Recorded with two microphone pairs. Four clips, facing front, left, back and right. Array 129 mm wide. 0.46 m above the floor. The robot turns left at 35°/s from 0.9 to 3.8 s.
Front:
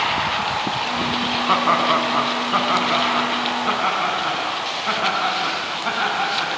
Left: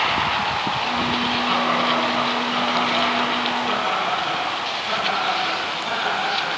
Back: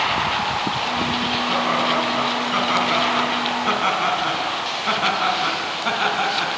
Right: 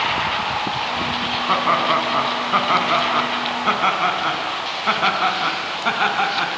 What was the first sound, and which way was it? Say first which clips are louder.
Laughter: right 4 dB, front 4 dB; 25° right.